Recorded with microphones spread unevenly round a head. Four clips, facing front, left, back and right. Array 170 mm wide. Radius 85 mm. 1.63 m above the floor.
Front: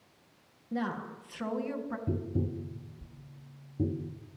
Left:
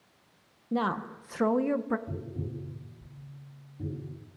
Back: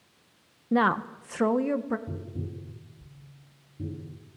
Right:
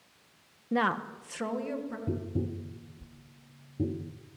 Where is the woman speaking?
175° right, 1.2 m; by 2.0 s 145° left, 1.5 m.